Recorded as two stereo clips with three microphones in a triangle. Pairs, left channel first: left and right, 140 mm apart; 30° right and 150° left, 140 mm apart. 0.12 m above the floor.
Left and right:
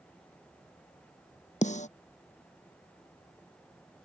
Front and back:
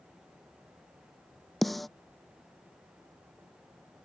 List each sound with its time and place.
1.6 s a snare drum: 60° left